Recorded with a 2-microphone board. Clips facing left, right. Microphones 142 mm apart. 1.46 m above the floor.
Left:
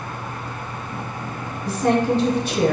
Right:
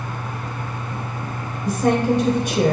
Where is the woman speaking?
15° right (ahead or behind), 0.9 m.